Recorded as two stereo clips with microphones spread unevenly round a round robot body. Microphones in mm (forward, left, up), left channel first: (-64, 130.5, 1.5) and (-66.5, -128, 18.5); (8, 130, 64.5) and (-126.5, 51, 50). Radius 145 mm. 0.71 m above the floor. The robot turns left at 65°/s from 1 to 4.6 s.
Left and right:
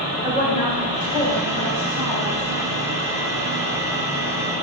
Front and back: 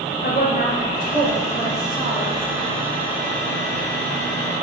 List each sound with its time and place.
0.2 s a woman speaking: 25° left, 3.5 m; by 2.7 s 85° right, 3.5 m